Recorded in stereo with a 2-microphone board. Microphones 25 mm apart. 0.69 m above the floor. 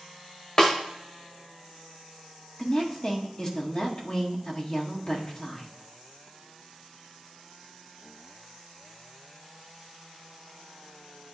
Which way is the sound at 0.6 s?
25° left (ahead or behind).